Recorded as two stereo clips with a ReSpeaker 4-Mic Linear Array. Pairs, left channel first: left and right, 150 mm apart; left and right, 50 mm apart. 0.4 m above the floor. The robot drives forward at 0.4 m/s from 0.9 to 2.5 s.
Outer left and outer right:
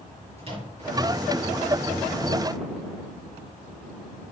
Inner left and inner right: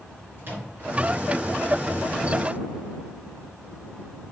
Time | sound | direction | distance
0.4 | a microwave | 45° right (ahead or behind) | 4.5 m